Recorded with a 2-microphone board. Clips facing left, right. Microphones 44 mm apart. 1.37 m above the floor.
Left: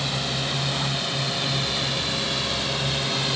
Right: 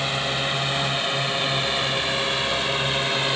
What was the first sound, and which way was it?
A drone, 30° right (ahead or behind).